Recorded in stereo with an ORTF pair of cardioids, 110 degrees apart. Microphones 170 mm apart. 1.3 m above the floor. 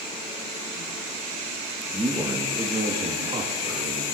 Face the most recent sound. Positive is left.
turn(degrees=-40)